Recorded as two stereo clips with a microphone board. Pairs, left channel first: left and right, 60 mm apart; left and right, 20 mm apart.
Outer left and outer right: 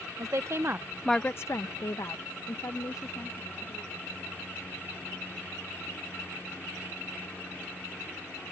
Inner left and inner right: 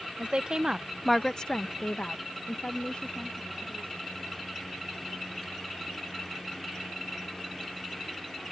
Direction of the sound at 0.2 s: 55° right (ahead or behind).